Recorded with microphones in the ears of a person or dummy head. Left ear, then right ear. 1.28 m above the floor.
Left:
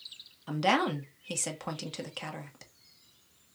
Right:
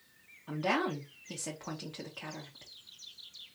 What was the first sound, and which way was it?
A woman speaking, 75° left (ahead or behind).